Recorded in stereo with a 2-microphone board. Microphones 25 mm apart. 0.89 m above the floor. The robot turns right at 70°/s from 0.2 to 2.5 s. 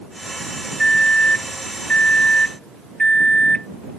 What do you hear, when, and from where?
0.8 s a microwave: 20° left; by 3.7 s 140° left